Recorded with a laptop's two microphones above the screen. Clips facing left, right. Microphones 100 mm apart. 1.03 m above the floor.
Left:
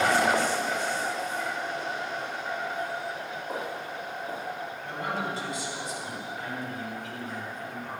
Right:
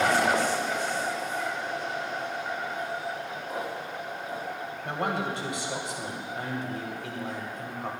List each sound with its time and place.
3.5 s footsteps: 30° left (ahead or behind), 4.5 m
4.8 s a man speaking: 75° right (ahead or behind), 3 m